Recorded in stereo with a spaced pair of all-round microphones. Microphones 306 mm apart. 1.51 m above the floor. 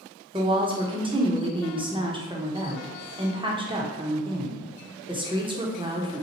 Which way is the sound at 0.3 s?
15° right (ahead or behind).